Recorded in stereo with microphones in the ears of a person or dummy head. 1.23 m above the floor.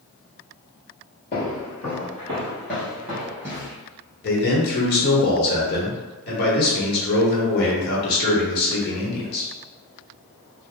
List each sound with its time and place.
1.3 s footsteps: 40° left (ahead or behind), 1.6 m; by 3.7 s 20° right (ahead or behind), 1.5 m
4.2 s a man speaking: 60° left (ahead or behind), 1.3 m